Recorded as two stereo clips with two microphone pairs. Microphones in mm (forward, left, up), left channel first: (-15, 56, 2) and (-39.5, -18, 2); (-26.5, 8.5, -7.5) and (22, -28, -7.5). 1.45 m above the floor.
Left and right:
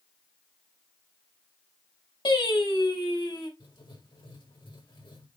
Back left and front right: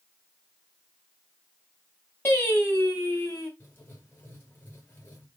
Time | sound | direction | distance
2.2 | singing | 85° left | 5.5 m
3.6 | writing | 85° left | 4.5 m